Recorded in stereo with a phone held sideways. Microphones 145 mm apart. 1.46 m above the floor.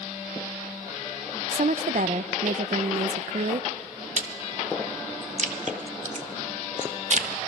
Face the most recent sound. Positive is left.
turn(degrees=-55)  # may be behind; listen again after turning